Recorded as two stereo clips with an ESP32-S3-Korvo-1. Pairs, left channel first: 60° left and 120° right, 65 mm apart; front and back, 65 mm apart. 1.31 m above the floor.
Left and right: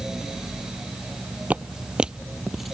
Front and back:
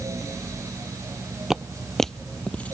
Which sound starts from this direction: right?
Footsteps, at 1.5 s.